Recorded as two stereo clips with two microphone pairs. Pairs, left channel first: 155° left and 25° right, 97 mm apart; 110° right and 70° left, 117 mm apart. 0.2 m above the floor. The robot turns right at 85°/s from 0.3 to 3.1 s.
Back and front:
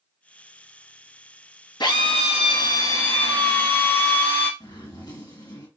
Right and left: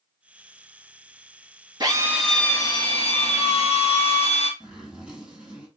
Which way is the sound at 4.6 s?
145° left.